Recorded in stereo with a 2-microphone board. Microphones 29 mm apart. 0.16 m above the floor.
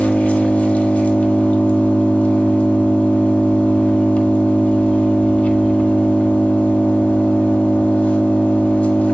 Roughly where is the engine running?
Left.